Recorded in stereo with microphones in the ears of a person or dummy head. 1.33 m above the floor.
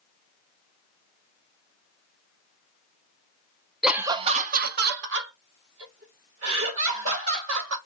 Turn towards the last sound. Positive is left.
turn(degrees=-85)